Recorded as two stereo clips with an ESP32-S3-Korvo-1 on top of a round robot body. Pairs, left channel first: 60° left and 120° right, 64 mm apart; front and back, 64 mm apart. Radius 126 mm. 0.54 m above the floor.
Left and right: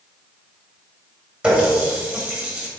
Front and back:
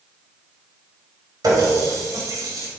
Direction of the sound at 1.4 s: 165° left.